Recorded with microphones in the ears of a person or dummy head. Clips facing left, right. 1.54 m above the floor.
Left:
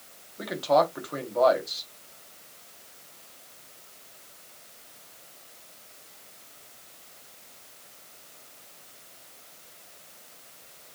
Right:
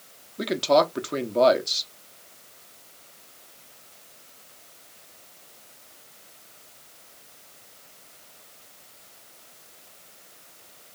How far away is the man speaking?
About 1.0 m.